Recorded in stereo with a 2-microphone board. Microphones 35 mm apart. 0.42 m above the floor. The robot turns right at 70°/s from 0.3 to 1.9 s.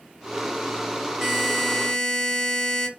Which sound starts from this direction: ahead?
A buzzer, at 1.2 s.